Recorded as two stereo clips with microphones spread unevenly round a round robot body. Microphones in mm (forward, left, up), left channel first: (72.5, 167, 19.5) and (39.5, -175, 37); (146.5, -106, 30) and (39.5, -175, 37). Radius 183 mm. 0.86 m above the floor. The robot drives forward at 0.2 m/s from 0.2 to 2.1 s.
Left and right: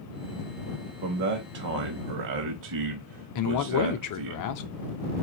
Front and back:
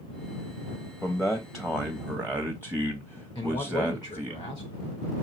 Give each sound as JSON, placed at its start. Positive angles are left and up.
{"t": 1.0, "sound": "a man speaking", "azimuth_deg": -50, "distance_m": 0.8}
{"t": 3.4, "sound": "a man speaking", "azimuth_deg": 85, "distance_m": 0.6}